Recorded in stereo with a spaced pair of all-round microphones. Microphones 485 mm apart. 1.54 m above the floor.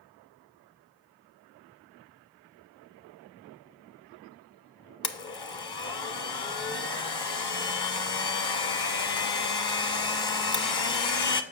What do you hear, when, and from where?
5.0 s a blender: 50° left (ahead or behind), 0.7 m